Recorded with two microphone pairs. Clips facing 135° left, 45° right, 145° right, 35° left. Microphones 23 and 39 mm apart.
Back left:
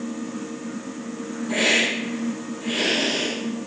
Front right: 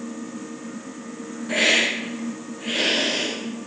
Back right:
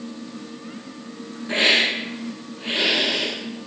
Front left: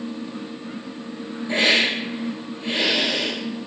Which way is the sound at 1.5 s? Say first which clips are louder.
Front right 1 dB, even; 105° right.